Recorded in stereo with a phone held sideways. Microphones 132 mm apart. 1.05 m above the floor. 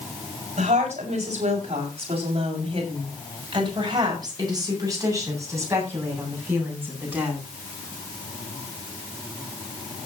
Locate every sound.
0.6 s a woman speaking: 65° right (ahead or behind), 6.5 m; by 7.4 s 15° right (ahead or behind), 9.5 m